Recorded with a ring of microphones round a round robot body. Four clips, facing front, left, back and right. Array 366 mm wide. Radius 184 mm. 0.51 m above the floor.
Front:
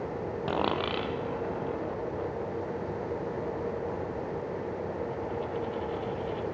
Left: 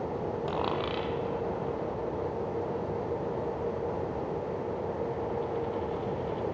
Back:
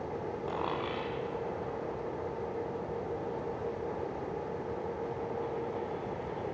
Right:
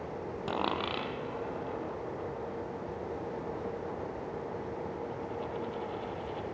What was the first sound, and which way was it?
A dropped coin, 5° right.